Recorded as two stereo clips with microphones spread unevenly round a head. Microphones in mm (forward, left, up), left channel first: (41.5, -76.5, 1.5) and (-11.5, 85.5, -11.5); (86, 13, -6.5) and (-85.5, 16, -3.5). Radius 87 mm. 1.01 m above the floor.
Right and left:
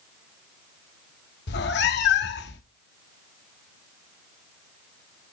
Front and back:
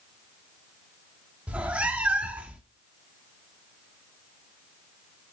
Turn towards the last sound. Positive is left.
turn(degrees=-95)